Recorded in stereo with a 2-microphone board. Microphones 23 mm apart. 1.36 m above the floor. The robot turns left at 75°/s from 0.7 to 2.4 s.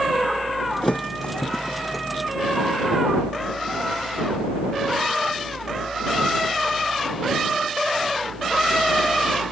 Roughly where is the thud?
Left.